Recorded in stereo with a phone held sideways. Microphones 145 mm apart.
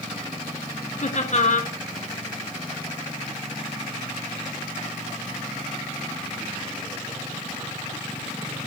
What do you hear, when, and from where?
1.0 s laughter: 55° left (ahead or behind), 1.6 m